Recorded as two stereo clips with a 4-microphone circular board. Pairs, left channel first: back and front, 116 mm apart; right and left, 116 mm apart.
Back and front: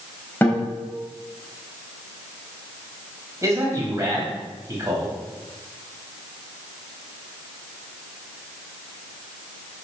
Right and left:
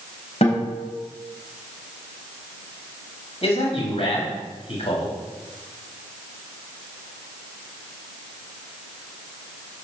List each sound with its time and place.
0.4 s a guitar: 105° right, 3.5 m
3.4 s a man speaking: 60° right, 4 m